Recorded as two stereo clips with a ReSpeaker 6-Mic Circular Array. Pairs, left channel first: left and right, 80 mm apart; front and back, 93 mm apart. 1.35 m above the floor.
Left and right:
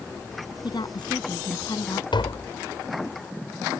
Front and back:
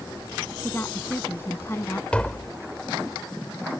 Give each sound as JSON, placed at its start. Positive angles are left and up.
{"t": 0.6, "sound": "a woman speaking", "azimuth_deg": 65}
{"t": 2.1, "sound": "tapping", "azimuth_deg": 80}